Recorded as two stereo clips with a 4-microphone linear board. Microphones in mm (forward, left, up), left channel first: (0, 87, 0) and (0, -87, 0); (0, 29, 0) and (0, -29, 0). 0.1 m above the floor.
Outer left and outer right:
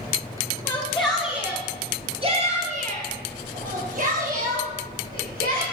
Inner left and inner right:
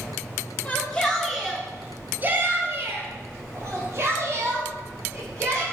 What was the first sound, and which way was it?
A shout, 15° left (ahead or behind).